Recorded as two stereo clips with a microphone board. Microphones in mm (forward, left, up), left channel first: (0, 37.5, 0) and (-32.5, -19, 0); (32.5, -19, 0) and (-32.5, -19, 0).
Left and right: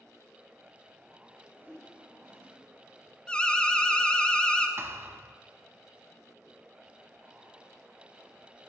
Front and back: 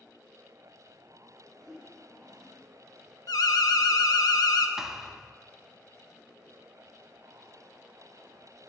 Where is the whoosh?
175° right, 3 m.